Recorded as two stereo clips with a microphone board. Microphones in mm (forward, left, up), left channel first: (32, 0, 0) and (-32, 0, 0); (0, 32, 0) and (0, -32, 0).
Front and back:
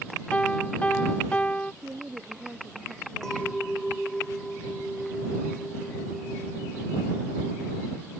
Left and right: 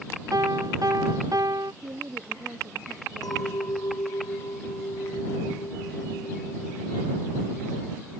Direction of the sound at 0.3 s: 70° right.